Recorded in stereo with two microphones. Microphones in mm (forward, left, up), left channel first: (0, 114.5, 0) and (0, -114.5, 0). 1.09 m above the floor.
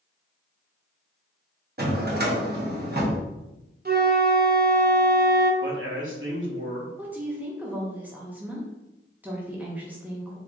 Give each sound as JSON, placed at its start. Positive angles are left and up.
{"t": 1.8, "sound": "a drawer", "side_deg": -45, "distance_m": 0.8}
{"t": 3.9, "sound": "a flute", "side_deg": -45, "distance_m": 0.6}
{"t": 5.6, "sound": "a man speaking", "side_deg": -60, "distance_m": 1.1}
{"t": 7.0, "sound": "a woman speaking", "side_deg": -10, "distance_m": 0.7}